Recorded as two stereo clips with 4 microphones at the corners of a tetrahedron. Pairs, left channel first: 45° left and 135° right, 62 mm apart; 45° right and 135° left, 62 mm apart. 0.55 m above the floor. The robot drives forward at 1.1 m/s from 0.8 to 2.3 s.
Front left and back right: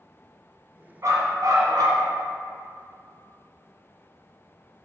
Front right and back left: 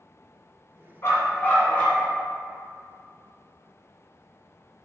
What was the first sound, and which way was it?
A dog barking, 90° right.